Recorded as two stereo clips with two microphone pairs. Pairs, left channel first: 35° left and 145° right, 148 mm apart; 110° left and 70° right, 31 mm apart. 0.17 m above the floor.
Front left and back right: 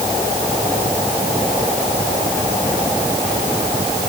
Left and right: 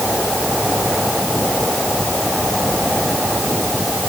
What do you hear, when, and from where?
Only background noise.